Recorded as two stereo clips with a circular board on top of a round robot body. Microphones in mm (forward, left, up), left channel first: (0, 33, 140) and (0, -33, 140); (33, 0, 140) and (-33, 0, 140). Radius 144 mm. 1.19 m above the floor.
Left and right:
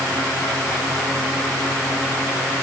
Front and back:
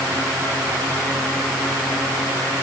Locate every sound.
Only background noise.